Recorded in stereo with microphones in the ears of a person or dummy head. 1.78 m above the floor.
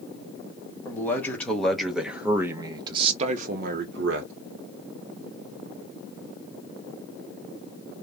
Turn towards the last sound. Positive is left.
turn(degrees=-75)  # may be behind; listen again after turning